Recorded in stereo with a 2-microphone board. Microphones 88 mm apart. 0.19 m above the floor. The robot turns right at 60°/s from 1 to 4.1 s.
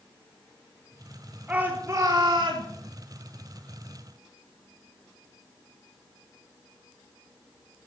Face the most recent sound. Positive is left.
turn(degrees=-10)